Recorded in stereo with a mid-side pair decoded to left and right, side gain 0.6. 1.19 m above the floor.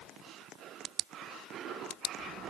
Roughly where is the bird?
No bird in this recording.